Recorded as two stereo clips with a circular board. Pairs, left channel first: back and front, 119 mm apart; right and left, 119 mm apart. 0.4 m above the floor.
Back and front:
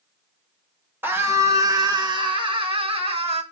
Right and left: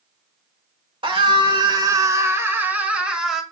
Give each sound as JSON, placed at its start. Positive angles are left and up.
{"t": 1.0, "sound": "a scream", "azimuth_deg": 65, "distance_m": 1.3}